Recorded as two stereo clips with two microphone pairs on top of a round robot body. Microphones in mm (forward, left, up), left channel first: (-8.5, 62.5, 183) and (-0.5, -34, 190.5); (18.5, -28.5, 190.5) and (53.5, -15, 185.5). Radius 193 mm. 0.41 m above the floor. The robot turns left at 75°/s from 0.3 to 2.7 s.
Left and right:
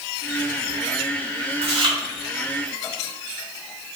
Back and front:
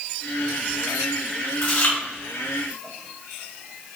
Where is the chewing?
105° right, 3.5 m; by 2.0 s 130° right, 3.5 m.